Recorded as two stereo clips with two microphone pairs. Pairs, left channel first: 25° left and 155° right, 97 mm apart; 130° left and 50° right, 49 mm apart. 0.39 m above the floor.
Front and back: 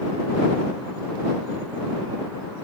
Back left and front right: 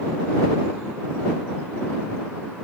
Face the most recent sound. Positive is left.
No sound to turn to.